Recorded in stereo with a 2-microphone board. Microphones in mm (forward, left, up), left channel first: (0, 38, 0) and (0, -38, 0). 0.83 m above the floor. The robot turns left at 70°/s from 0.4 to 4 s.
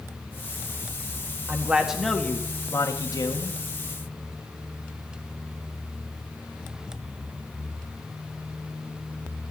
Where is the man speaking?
140° right, 1.5 m; by 3.6 s 70° left, 1.5 m.